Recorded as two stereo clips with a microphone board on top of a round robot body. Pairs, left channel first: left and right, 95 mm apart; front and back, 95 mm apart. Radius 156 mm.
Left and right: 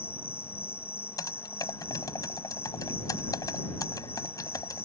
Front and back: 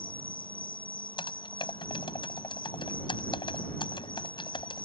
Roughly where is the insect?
Ahead left.